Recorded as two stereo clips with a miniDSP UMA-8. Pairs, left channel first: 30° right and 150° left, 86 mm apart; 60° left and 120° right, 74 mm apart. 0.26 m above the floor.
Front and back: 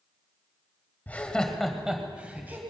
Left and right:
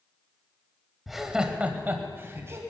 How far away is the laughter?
About 1.3 m.